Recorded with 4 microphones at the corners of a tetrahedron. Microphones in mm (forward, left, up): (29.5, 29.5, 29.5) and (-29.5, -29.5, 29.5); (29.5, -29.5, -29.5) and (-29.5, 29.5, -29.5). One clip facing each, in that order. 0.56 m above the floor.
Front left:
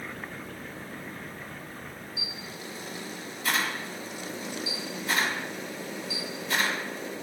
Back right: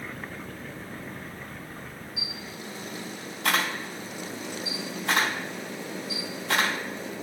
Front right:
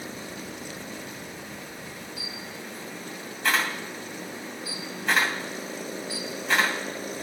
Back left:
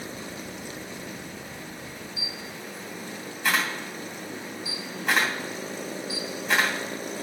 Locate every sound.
2.2 s a camera shutter: 140° right, 3 m